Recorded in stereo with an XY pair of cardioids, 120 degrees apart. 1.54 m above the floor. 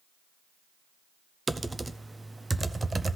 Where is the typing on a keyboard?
15° right, 0.6 m.